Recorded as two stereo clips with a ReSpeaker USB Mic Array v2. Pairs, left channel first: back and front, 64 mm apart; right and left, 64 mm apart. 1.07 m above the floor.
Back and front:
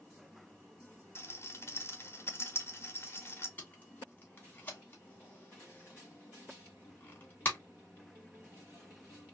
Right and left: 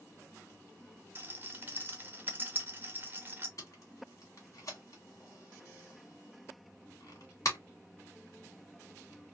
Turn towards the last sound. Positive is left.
turn(degrees=-120)